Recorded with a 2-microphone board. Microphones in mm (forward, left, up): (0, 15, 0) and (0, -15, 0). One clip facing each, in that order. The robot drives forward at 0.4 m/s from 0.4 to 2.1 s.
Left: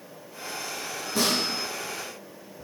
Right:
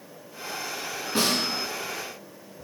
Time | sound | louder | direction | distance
1.1 | a snare drum | right 1 dB | 55° right (ahead or behind) | 1.4 m